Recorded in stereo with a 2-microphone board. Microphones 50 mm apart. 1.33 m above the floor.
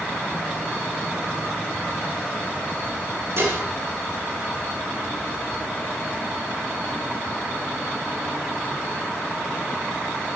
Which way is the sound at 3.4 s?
60° right (ahead or behind).